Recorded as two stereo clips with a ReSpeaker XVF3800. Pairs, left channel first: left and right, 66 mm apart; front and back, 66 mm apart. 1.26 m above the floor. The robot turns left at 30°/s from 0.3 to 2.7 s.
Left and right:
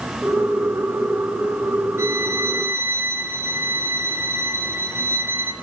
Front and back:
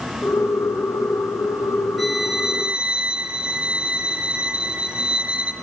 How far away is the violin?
About 0.5 m.